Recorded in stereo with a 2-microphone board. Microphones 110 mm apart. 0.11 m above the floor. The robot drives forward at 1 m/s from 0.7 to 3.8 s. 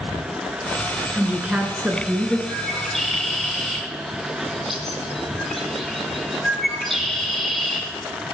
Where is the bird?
Centre (ahead or behind), 3 m; by 7.8 s 5° left (ahead or behind), 1.7 m.